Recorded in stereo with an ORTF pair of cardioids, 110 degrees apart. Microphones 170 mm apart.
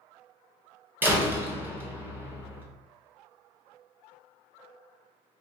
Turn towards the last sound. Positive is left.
turn(degrees=-15)